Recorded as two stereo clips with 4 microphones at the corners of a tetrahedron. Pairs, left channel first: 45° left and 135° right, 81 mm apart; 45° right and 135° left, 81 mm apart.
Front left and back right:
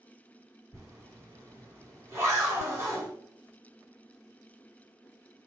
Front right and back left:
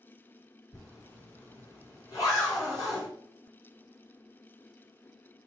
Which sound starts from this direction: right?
A zipper, at 0.7 s.